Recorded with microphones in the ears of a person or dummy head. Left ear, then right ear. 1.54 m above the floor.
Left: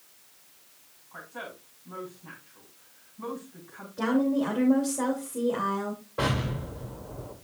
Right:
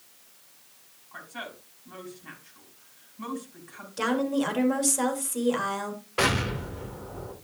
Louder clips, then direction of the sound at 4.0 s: Even; 75° right (ahead or behind).